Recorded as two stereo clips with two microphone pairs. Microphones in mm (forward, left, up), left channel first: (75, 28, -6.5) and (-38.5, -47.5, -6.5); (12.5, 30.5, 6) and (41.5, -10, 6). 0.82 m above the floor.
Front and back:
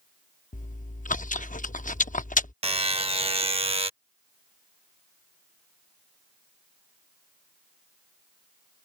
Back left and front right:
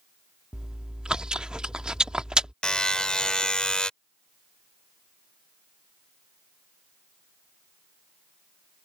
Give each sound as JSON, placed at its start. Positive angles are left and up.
{"t": 0.5, "sound": "chewing", "azimuth_deg": 20}
{"t": 2.6, "sound": "a buzzer", "azimuth_deg": -165}